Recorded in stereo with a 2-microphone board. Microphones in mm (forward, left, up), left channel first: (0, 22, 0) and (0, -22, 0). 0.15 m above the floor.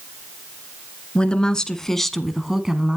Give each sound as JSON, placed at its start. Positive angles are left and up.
{"t": 1.1, "sound": "a woman speaking", "side_deg": 25, "distance_m": 1.5}